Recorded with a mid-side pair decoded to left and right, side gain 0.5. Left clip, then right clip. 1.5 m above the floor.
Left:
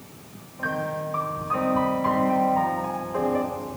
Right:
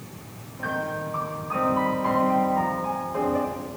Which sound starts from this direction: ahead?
A piano, at 0.6 s.